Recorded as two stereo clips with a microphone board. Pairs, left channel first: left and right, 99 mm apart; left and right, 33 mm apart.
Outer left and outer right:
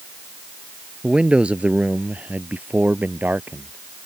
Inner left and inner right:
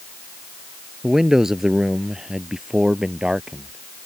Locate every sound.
1.0 s a man speaking: 10° right (ahead or behind); by 4.1 s 20° right (ahead or behind)